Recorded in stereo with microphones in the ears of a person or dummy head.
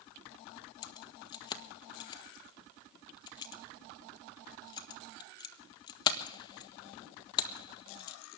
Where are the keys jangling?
30° left (ahead or behind), 1.3 m.